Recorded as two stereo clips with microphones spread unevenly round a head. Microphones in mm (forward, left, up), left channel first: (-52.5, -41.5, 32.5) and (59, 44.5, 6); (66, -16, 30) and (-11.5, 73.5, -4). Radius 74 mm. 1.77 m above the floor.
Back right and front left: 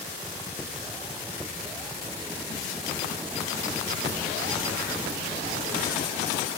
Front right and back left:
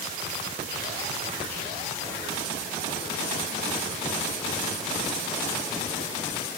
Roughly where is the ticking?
No ticking in this recording.